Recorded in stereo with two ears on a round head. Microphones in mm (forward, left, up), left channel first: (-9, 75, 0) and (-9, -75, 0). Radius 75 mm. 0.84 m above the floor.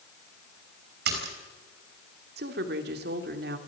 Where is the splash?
70° right (ahead or behind), 5.5 m.